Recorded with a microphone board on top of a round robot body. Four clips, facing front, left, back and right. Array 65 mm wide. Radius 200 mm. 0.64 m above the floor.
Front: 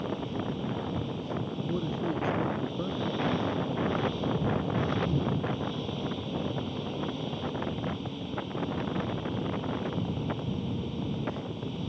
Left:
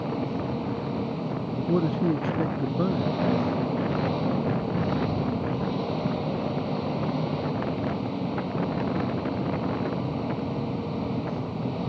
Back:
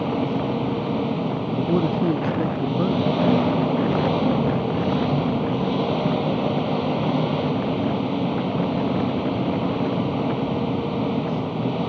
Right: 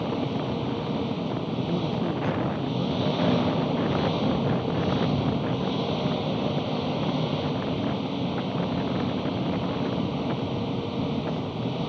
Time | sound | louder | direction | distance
0.0 | an engine running | right 1 dB, back 10 dB | 175° left | ?
1.7 | a man speaking | left 6 dB, back 11 dB | 135° left | ?